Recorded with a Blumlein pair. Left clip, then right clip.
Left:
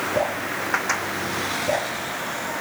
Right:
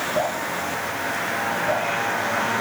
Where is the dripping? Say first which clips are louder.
Even; 40° left, 5 m.